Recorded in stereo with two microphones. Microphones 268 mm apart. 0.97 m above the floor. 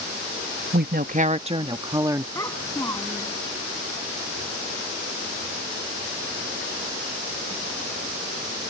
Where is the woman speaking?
40° right (ahead or behind); by 2.2 s 10° right (ahead or behind).